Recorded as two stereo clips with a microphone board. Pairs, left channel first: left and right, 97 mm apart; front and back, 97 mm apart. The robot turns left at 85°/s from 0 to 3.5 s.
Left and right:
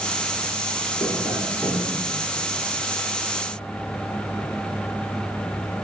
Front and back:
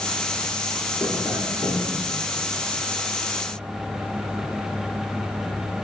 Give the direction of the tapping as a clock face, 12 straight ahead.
10 o'clock.